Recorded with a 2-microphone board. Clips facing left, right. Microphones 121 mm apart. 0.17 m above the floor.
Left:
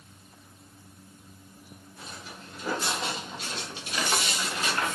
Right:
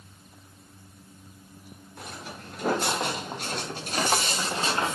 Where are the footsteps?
60° right (ahead or behind), 2.5 m; by 5.0 s 20° right (ahead or behind), 1.0 m.